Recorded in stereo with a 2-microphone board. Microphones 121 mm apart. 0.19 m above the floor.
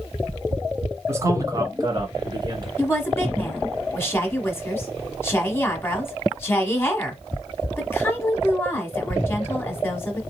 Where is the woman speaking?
20° left (ahead or behind), 1.0 m.